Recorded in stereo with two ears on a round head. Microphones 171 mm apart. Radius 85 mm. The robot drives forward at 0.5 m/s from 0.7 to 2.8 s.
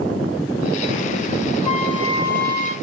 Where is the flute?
35° left (ahead or behind), 1.1 m; by 2.7 s 30° left (ahead or behind), 1.3 m.